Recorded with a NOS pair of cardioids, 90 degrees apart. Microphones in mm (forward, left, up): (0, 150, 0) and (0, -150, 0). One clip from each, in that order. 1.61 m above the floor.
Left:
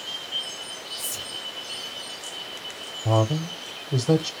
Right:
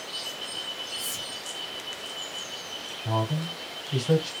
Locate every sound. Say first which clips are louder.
1.0 s whispering: even; 10° left, 0.6 m
3.0 s a man speaking: left 6 dB; 50° left, 0.7 m